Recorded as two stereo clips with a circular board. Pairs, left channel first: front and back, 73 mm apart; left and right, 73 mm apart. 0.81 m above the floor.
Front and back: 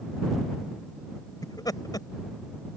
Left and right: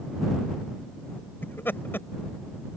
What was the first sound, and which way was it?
Laughter, 30° left.